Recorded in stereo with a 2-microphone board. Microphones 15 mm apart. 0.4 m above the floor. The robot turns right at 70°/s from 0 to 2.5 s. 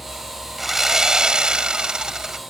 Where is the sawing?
170° right; by 2.4 s 40° right.